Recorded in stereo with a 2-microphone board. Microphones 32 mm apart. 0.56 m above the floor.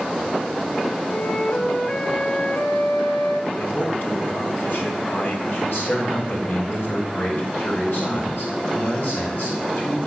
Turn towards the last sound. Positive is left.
turn(degrees=60)  # may be behind; listen again after turning